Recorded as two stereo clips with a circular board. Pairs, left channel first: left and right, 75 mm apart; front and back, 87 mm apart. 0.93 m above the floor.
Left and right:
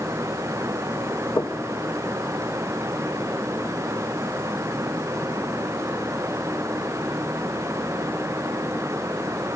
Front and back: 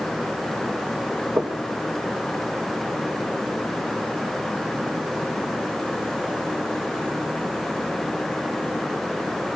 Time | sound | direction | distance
1.4 | knocking | 115° left | 1.1 m